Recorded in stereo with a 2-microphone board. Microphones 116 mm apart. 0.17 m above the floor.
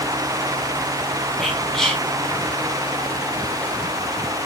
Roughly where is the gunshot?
I don't hear a gunshot.